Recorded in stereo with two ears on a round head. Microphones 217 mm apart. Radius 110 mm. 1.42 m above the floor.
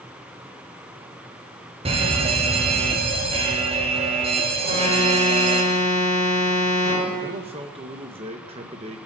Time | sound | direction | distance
1.9 | a fire alarm | 25° right (ahead or behind) | 1.1 m
4.6 | an alarm | 35° right (ahead or behind) | 4.5 m
7.2 | a man speaking | 25° right (ahead or behind) | 1.1 m